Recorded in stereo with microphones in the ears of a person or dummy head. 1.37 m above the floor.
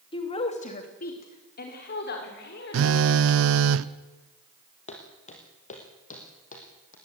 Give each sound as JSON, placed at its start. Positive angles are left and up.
{"t": 0.1, "sound": "a woman speaking", "side_deg": 30, "distance_m": 2.5}
{"t": 2.7, "sound": "a phone buzzing", "side_deg": -70, "distance_m": 0.8}
{"t": 4.9, "sound": "footsteps", "side_deg": 40, "distance_m": 3.0}